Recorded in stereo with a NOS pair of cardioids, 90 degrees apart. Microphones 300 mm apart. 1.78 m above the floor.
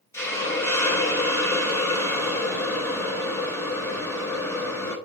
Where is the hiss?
10° left, 1.0 m.